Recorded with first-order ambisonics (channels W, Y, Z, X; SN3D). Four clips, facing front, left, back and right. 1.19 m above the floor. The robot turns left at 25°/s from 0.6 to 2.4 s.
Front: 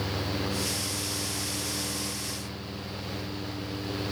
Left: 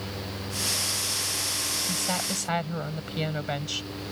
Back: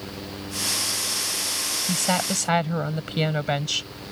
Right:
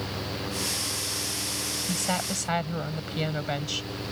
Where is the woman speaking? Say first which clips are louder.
Even, back 10 dB; 165° right; by 3.9 s straight behind.